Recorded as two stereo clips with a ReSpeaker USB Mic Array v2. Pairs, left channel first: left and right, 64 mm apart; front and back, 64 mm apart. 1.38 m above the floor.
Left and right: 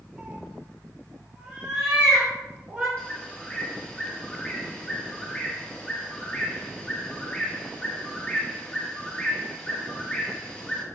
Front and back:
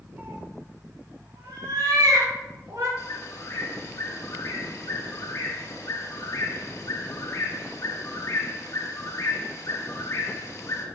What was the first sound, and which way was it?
A cat meowing, 150° right.